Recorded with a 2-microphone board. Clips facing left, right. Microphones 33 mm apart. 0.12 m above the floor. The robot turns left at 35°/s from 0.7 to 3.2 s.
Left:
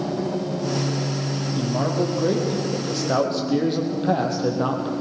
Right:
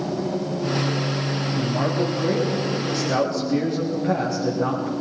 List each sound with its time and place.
1.6 s a man speaking: 170° left, 5 m; by 4.9 s 110° left, 5 m